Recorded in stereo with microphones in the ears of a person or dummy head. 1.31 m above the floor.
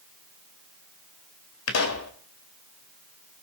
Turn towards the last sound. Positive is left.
turn(degrees=75)  # may be behind; listen again after turning